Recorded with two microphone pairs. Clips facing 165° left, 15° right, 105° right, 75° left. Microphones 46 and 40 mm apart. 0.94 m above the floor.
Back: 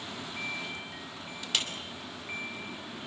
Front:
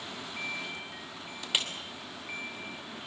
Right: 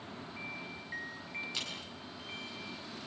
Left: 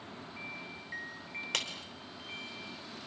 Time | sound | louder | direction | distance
1.5 | a clap | front 1 dB, left 7 dB | 60° left | 3 m